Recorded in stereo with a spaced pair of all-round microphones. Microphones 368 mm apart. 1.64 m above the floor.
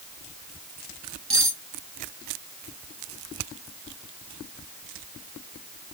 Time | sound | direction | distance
1.3 | cutlery clinking | 35° right (ahead or behind) | 1.1 m